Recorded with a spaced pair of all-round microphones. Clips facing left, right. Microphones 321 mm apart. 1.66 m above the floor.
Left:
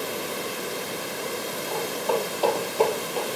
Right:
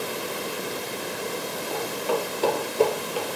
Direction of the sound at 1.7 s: 40° right (ahead or behind).